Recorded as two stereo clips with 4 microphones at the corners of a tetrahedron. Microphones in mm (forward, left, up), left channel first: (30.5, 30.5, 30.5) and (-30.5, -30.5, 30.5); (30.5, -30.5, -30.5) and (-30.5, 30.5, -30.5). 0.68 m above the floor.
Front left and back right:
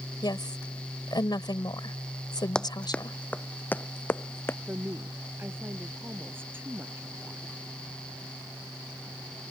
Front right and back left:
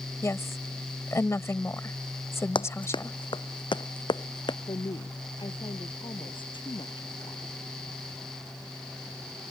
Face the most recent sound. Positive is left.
turn(degrees=-70)